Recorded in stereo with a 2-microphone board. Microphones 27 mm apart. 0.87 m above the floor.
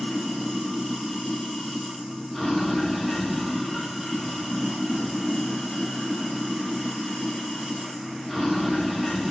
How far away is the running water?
About 1.5 m.